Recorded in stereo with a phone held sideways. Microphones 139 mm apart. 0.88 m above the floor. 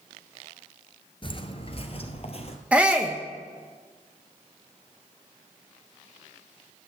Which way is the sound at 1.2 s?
40° left (ahead or behind).